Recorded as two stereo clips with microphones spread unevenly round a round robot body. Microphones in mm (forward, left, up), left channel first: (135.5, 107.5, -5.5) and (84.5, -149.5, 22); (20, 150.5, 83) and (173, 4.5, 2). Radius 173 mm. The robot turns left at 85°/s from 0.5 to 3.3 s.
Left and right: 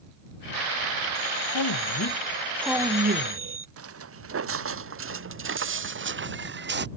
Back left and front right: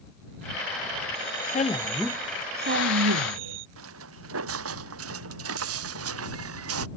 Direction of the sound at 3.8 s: 70° right.